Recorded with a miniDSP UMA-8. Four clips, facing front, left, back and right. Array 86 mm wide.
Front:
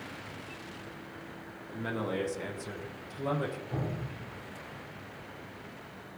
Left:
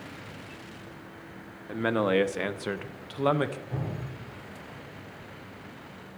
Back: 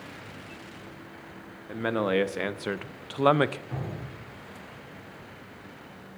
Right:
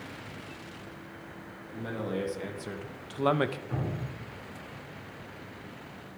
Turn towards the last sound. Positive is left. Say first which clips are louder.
# right 1 dB, front 1 dB
turn(degrees=-115)